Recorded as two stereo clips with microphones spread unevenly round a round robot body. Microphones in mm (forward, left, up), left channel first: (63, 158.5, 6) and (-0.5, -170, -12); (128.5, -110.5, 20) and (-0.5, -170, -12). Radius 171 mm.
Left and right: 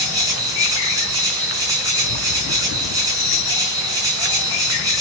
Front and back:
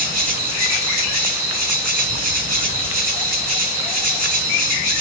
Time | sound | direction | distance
0.0 | an insect | straight behind | 2 m